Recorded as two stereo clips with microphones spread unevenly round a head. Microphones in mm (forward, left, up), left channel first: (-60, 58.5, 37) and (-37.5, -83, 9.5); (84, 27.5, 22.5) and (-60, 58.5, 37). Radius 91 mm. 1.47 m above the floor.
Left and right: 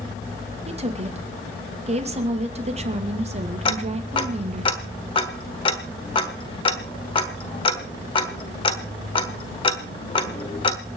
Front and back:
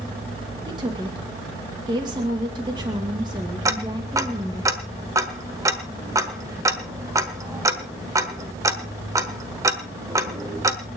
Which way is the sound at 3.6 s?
115° left.